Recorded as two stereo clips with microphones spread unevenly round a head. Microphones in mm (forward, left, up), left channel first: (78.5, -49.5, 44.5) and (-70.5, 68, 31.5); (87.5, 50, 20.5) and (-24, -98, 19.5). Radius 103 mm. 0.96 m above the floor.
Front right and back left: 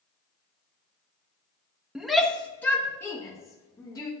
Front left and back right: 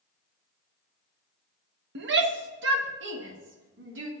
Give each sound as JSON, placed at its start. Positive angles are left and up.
{"t": 1.9, "sound": "a shout", "azimuth_deg": -135, "distance_m": 0.9}